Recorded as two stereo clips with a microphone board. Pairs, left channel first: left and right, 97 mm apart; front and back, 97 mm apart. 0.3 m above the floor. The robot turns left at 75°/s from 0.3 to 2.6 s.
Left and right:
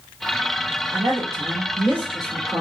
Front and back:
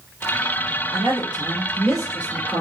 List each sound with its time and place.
0.9 s a woman speaking: 40° right, 2.5 m; by 2.6 s 165° right, 2.5 m